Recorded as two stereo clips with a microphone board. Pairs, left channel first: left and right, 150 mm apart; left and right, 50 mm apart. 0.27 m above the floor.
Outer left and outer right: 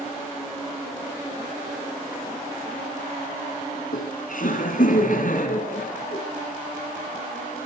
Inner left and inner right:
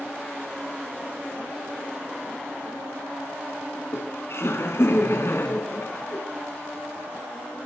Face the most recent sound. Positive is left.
turn(degrees=65)  # may be behind; listen again after turning